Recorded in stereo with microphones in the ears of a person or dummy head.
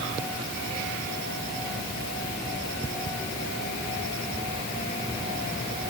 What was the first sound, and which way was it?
Only background noise.